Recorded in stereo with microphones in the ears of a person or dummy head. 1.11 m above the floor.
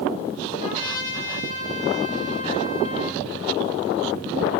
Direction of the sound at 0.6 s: 40° left (ahead or behind).